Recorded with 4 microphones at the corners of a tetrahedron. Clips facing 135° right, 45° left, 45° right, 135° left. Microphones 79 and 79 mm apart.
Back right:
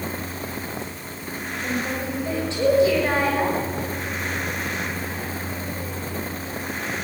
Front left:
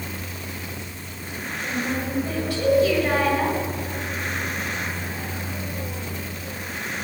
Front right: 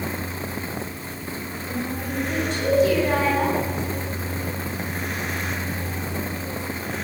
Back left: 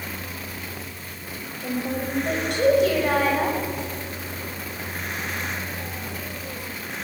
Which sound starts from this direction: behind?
A woman speaking, at 1.4 s.